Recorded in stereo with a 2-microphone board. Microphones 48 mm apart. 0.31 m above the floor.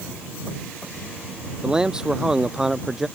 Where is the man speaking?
20° right (ahead or behind); by 3.1 s 10° right (ahead or behind).